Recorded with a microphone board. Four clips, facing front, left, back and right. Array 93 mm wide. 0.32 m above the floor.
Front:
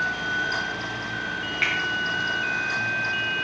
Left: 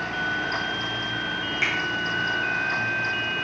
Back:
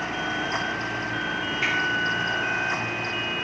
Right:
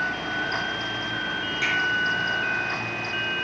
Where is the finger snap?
25° left, 3.5 m.